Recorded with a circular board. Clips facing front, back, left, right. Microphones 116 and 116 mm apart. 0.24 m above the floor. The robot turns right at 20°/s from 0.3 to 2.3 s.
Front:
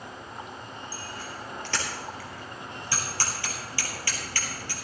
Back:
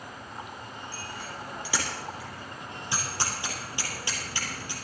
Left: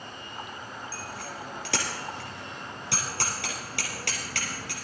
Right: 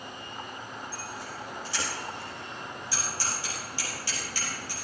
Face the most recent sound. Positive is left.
turn(degrees=110)